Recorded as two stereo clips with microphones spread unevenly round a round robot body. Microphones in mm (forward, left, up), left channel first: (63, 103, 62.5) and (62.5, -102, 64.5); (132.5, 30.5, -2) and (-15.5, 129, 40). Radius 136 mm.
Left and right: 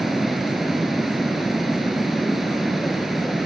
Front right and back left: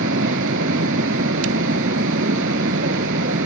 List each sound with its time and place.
0.0 s running water: straight behind, 1.0 m